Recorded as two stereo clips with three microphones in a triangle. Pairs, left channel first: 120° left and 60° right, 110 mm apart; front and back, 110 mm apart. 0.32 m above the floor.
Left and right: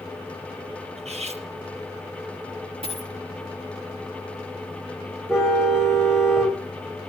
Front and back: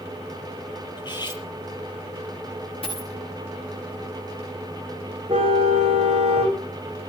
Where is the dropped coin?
35° right, 9.5 m.